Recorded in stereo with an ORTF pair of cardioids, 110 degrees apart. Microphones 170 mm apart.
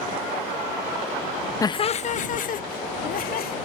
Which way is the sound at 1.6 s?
20° left.